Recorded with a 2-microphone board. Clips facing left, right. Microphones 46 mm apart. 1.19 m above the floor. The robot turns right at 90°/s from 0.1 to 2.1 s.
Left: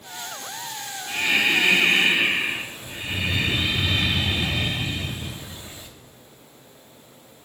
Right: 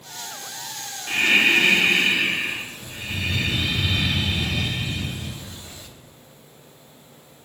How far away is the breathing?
About 0.8 m.